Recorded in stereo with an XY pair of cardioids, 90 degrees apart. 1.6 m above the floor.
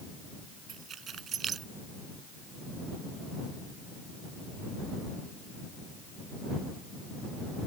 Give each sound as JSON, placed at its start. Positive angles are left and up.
{"t": 0.7, "sound": "keys jangling", "azimuth_deg": -60}